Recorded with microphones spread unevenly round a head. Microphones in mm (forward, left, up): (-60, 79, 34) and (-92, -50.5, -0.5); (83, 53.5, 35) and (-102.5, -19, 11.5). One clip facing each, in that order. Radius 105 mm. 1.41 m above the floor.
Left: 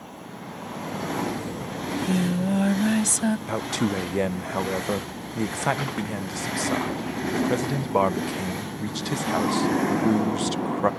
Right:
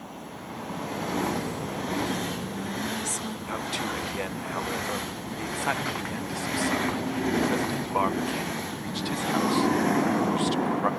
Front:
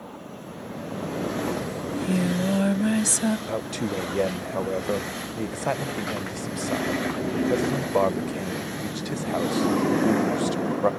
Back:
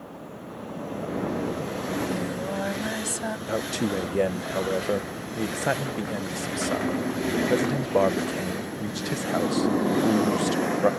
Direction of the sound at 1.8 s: 70° left.